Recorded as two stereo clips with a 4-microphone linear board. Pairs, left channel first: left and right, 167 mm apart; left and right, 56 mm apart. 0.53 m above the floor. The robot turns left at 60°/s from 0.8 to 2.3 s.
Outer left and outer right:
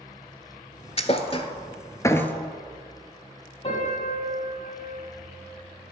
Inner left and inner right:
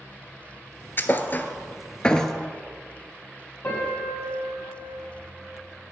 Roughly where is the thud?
Left.